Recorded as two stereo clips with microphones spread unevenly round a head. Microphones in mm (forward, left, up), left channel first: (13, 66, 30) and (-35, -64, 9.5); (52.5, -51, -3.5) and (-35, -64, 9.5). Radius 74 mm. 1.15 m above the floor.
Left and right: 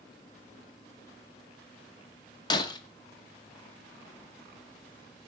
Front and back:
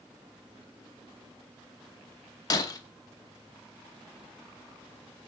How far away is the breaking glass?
About 0.7 m.